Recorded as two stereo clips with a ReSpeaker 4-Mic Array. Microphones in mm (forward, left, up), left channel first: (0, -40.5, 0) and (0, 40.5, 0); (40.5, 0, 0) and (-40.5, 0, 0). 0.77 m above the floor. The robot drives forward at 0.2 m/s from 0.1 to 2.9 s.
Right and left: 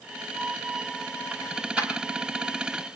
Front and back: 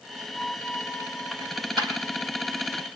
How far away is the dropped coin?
About 6 m.